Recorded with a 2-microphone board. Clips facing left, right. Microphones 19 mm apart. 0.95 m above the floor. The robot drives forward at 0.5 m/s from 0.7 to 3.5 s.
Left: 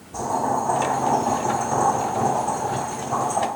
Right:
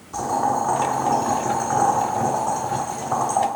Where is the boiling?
60° right (ahead or behind), 1.6 m; by 3.5 s 50° right (ahead or behind), 1.8 m.